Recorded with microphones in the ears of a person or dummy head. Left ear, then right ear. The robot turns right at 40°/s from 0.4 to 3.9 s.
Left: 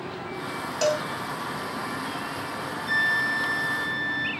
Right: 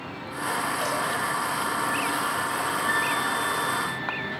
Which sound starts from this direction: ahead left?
A flute, at 2.9 s.